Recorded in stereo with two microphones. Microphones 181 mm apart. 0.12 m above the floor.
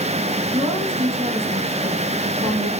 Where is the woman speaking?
30° right (ahead or behind), 8.5 m.